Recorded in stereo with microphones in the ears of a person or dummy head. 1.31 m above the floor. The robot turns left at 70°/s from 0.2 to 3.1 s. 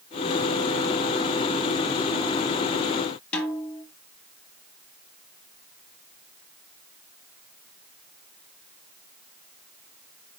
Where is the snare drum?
5° left (ahead or behind), 2.5 m.